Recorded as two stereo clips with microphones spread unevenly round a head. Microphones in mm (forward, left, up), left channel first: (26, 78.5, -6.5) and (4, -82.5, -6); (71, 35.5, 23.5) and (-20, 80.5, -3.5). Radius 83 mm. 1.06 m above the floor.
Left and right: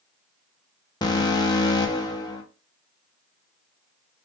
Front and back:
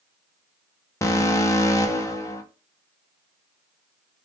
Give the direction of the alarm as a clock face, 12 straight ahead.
11 o'clock.